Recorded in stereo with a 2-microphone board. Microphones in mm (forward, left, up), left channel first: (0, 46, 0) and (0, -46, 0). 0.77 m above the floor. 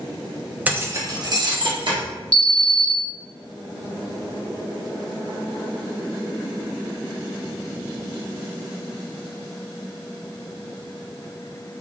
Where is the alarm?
10° left (ahead or behind), 1.5 m.